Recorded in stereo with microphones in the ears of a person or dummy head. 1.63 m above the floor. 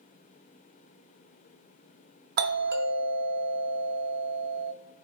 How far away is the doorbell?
About 0.6 m.